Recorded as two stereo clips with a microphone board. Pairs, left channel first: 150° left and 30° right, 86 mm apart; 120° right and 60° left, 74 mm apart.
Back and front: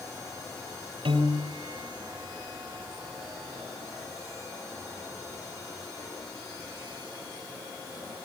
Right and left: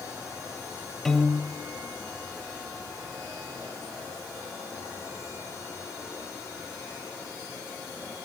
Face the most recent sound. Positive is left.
turn(degrees=-35)